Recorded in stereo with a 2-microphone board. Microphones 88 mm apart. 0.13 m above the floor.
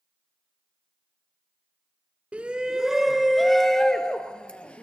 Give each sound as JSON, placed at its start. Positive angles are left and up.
{"t": 2.3, "sound": "a shout", "side_deg": -15, "distance_m": 1.2}